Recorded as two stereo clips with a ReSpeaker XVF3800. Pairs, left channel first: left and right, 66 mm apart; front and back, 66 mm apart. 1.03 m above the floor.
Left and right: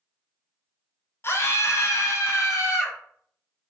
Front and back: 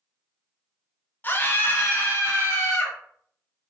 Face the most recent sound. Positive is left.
turn(degrees=55)